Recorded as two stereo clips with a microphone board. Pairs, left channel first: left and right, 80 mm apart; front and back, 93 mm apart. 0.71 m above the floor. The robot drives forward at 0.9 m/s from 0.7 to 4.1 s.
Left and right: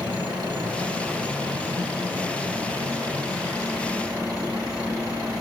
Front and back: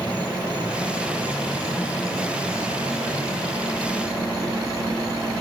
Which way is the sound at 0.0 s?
105° right.